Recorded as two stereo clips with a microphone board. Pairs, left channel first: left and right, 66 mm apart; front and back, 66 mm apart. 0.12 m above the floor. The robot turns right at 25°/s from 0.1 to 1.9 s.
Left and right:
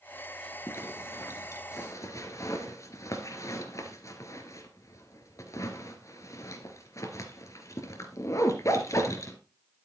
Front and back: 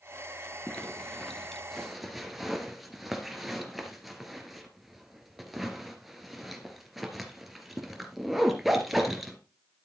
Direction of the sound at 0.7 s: 65° left.